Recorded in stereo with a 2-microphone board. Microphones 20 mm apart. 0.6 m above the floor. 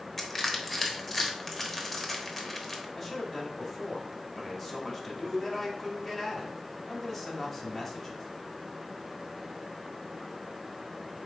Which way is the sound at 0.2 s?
Centre (ahead or behind).